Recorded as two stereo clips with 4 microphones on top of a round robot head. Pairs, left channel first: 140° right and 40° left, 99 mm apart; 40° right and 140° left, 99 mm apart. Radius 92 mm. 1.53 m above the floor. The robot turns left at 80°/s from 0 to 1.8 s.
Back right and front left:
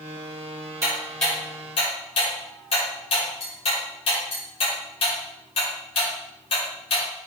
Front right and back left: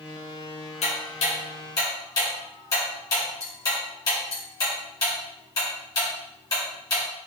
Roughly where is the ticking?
Ahead.